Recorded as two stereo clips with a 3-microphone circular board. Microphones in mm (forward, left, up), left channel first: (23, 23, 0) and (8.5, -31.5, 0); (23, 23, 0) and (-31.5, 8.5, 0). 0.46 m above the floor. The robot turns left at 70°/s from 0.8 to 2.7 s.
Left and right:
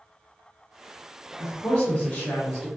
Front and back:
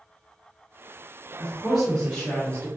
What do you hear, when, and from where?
1.4 s a woman speaking: 120° left, 0.8 m; by 2.7 s 30° left, 0.8 m